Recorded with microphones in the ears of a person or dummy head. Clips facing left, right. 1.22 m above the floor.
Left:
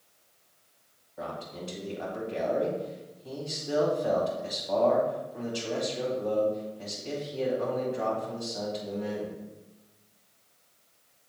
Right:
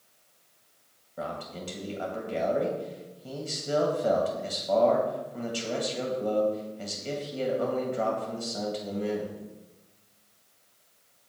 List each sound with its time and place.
1.2 s a man speaking: 65° right (ahead or behind), 1.9 m